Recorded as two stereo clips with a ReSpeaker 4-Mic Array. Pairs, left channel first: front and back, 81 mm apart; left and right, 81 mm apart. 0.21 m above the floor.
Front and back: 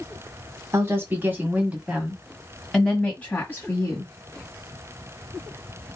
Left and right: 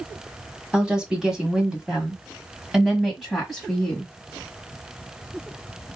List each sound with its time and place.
0.7 s a woman speaking: 165° right, 1.6 m; by 4.1 s straight ahead, 1.6 m